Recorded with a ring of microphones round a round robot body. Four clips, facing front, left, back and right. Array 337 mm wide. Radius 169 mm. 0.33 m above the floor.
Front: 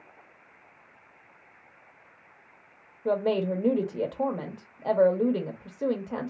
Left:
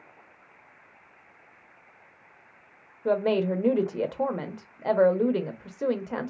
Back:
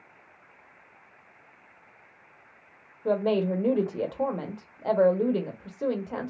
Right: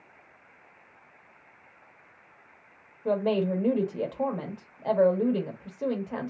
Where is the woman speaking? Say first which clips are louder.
Left 2 dB, back 1 dB; 90° left, 0.9 m.